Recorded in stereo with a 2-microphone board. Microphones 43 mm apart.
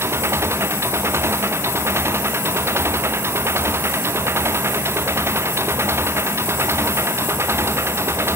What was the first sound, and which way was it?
An engine running, 75° right (ahead or behind).